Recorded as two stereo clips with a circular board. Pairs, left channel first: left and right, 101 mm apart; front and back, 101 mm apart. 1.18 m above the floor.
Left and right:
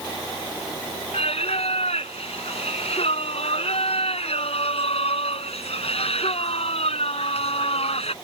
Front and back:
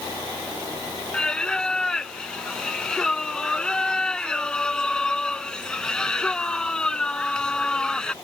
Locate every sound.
1.1 s singing: 80° left